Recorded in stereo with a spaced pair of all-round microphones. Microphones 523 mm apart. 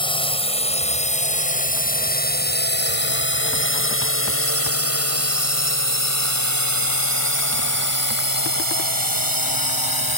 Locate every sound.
0.0 s a drone: 10° left (ahead or behind); by 10.2 s 45° left (ahead or behind)